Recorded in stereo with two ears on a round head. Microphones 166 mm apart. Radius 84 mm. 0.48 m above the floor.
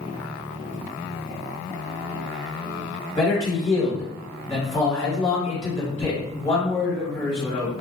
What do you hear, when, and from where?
3.2 s a man speaking: 25° left (ahead or behind), 1.5 m